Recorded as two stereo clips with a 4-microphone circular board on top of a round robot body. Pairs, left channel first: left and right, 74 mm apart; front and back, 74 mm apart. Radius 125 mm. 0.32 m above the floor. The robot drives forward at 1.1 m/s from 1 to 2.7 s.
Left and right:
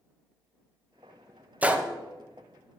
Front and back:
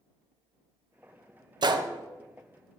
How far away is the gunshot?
About 0.8 m.